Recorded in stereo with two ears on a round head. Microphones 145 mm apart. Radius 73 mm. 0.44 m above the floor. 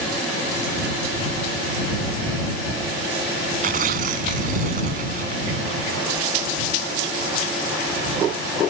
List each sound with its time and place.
3.6 s tearing paper: 50° right (ahead or behind)